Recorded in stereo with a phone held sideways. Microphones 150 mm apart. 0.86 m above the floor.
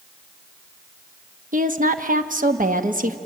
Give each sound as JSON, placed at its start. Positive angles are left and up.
{"t": 1.5, "sound": "a woman speaking", "side_deg": -55, "distance_m": 1.2}